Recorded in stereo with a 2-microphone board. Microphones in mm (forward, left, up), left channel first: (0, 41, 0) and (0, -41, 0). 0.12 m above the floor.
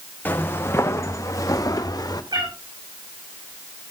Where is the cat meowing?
60° right (ahead or behind), 5 m.